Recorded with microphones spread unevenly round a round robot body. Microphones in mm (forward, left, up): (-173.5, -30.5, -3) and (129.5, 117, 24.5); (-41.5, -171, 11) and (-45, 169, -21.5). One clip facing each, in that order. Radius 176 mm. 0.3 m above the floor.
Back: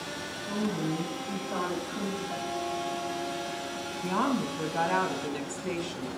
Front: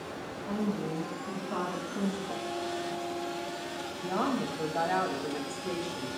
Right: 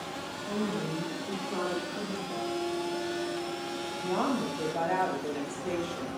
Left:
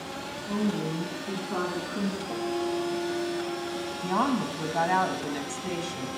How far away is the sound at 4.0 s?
About 2 m.